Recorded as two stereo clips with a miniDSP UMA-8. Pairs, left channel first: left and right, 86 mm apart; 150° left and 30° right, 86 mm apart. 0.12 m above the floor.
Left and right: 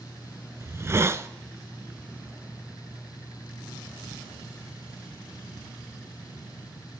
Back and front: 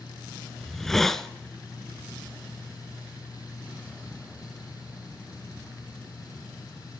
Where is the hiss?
125° right, 0.7 m.